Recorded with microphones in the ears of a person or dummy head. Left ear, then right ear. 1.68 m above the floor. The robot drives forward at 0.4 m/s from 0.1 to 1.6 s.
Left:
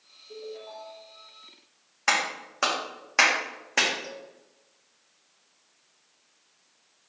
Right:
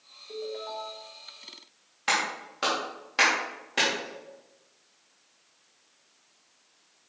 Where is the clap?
35° left (ahead or behind), 1.8 m.